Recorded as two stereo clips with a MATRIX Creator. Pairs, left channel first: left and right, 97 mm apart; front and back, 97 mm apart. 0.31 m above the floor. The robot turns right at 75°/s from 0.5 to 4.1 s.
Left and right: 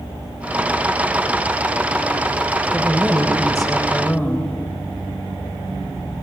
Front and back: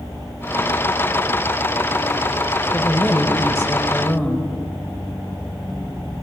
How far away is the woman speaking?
About 1.0 m.